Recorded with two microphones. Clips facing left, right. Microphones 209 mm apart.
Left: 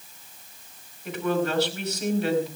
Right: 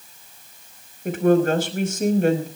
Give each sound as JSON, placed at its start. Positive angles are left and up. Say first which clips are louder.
{"t": 1.1, "sound": "a woman speaking", "louder": "right 8 dB", "side_deg": -50, "distance_m": 5.0}